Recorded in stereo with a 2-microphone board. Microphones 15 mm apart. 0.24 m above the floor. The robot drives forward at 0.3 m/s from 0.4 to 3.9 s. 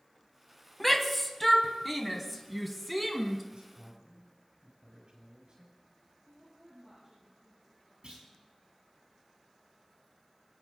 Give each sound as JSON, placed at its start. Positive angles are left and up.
{"t": 0.8, "sound": "a shout", "side_deg": 15, "distance_m": 1.4}
{"t": 3.5, "sound": "a man speaking", "side_deg": -50, "distance_m": 6.0}
{"t": 6.3, "sound": "a woman speaking", "side_deg": -5, "distance_m": 7.5}
{"t": 8.0, "sound": "a clunk", "side_deg": -55, "distance_m": 5.0}